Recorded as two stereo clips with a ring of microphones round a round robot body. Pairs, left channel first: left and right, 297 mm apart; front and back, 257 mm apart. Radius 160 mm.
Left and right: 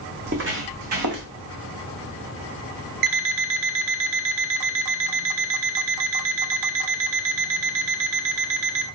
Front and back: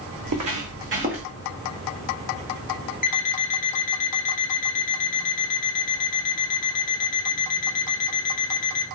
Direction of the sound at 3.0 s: 65° right.